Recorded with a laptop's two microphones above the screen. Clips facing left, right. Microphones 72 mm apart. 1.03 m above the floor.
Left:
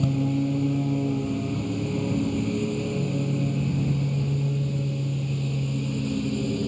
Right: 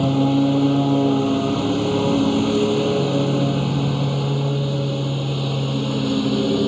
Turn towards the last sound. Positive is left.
turn(degrees=-75)  # may be behind; listen again after turning